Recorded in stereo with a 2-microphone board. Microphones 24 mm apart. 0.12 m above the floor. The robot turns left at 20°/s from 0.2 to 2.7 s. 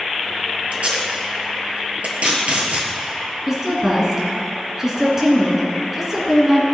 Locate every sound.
0.7 s tape being pulled: 55° right (ahead or behind), 1.2 m
3.5 s a woman speaking: 20° right (ahead or behind), 1.5 m